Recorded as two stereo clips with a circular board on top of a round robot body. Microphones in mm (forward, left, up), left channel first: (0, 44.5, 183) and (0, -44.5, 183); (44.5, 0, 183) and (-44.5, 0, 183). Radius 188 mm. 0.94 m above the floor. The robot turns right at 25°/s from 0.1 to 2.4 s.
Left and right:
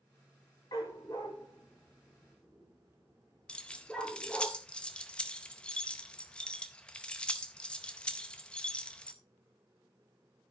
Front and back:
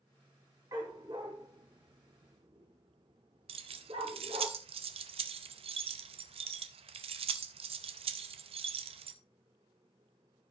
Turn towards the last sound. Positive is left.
turn(degrees=170)